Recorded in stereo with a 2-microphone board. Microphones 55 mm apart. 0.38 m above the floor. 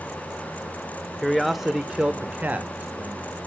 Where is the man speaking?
Centre (ahead or behind), 0.9 m; by 3.4 s 30° right (ahead or behind), 1.3 m.